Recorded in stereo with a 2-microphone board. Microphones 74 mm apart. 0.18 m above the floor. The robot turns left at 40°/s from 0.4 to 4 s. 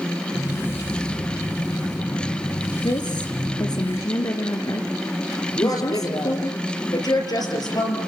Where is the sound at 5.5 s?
60° left (ahead or behind), 5 m.